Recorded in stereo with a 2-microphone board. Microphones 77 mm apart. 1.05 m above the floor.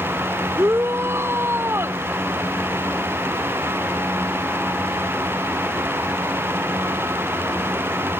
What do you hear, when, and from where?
0.6 s a shout: 40° right (ahead or behind)